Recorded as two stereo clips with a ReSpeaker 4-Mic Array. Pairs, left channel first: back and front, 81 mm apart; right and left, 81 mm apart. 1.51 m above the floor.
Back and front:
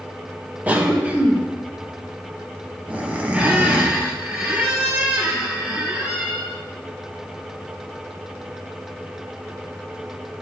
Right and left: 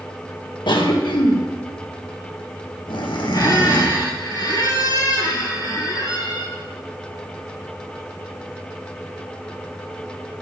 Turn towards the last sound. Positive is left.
turn(degrees=-75)